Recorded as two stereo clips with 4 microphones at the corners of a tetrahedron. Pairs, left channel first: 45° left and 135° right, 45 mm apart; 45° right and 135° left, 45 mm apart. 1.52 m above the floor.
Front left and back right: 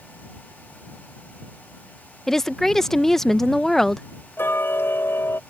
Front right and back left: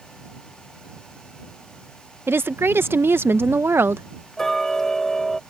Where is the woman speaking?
125° left.